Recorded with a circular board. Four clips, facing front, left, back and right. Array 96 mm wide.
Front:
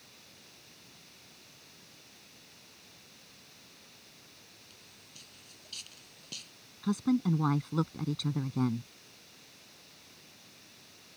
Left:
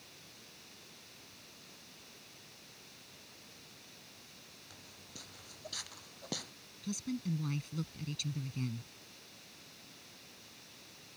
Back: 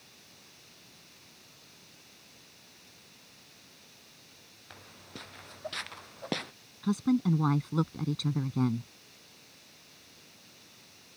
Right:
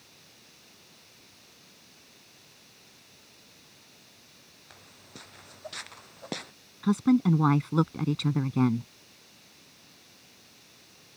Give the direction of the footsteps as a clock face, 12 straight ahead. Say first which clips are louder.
Right 6 dB, back 9 dB; 5 o'clock.